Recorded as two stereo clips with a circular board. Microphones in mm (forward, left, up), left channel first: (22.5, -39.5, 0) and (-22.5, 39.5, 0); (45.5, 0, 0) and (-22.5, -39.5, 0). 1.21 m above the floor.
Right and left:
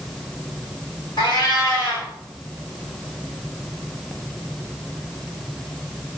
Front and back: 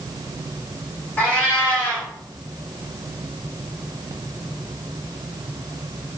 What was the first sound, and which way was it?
A cat meowing, 30° right.